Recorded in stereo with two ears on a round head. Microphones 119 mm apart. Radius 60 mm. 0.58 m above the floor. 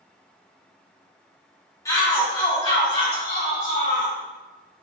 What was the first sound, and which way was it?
A shout, 25° left (ahead or behind).